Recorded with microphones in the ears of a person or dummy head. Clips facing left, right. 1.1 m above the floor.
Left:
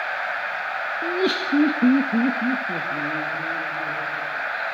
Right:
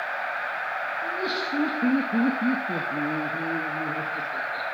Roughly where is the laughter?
Left.